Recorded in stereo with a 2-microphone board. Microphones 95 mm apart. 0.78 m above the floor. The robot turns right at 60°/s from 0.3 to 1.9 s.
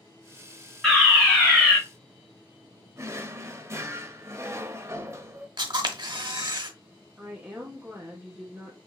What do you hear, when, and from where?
0.8 s a fire alarm: centre (ahead or behind), 1.6 m; by 1.8 s 20° left (ahead or behind), 1.6 m
3.0 s a drawer: 30° right (ahead or behind), 0.6 m
5.6 s a camera shutter: 55° right (ahead or behind), 0.8 m
7.2 s a woman speaking: 20° right (ahead or behind), 1.2 m